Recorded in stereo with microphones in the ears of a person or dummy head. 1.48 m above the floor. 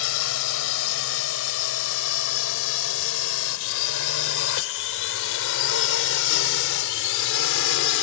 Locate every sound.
0.0 s a drone: 75° left (ahead or behind); by 8.1 s 70° left (ahead or behind)